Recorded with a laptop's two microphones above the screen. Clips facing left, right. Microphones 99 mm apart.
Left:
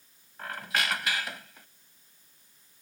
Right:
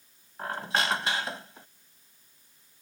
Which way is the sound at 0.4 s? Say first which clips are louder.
Right 3 dB; 30° right (ahead or behind).